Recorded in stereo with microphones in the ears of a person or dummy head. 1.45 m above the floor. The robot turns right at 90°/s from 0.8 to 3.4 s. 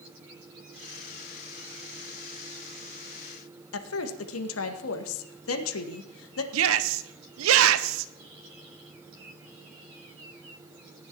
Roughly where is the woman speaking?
Left.